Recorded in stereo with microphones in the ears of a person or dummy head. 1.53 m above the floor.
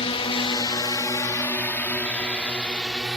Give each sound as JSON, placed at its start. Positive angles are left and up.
{"t": 0.0, "sound": "a drone", "side_deg": 30}